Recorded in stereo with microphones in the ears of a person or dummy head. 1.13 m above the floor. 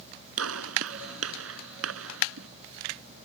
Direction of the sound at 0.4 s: 80° right.